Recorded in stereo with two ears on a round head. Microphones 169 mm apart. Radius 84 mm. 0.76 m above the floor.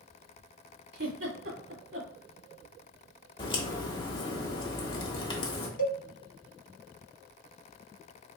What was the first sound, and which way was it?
A giggle, 75° right (ahead or behind).